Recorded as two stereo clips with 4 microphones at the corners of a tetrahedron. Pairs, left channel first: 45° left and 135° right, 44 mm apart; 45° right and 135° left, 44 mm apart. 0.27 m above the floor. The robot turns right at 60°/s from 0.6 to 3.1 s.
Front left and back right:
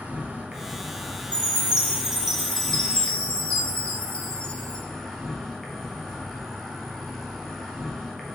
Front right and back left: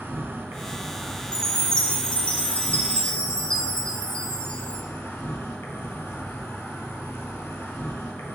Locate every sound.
0.0 s an insect: 165° left, 0.8 m; by 8.4 s 45° right, 0.8 m
1.3 s a chime: 110° right, 0.6 m; by 4.8 s 5° right, 0.6 m